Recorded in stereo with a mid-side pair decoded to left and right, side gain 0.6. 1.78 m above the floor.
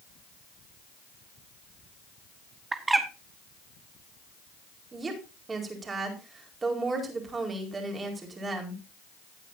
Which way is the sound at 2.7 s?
20° right.